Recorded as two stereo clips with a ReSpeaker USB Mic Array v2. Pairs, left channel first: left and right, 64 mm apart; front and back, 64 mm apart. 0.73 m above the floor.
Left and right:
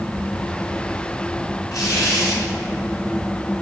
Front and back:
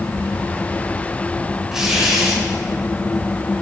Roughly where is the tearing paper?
Left.